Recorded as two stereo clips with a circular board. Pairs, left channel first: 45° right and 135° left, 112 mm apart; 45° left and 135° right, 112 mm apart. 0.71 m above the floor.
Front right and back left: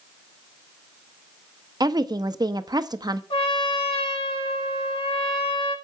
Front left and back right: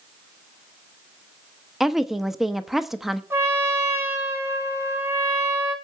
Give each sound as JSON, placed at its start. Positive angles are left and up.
{"t": 1.8, "sound": "a woman speaking", "azimuth_deg": 140, "distance_m": 0.7}
{"t": 3.3, "sound": "a trumpet", "azimuth_deg": -70, "distance_m": 2.5}